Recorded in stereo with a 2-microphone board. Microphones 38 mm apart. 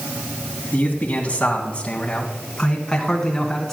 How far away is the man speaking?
About 1.9 m.